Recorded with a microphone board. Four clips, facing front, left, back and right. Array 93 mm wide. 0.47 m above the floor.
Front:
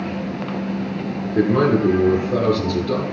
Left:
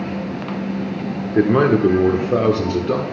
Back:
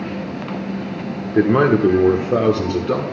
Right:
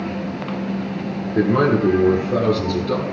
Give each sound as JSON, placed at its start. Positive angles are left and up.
{"t": 1.4, "sound": "a man speaking", "azimuth_deg": 150, "distance_m": 0.8}